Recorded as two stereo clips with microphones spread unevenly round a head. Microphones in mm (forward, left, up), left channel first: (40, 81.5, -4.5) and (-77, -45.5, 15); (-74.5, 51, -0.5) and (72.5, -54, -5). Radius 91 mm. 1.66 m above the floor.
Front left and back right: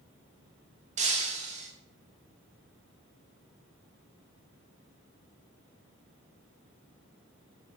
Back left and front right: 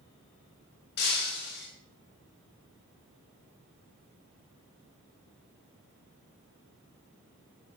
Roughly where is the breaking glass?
Behind.